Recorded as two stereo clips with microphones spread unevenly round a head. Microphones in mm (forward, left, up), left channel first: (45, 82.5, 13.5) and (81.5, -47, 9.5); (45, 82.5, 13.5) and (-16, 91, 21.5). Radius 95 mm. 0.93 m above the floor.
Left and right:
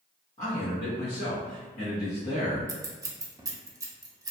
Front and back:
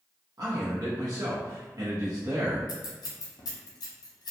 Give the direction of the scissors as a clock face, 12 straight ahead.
12 o'clock.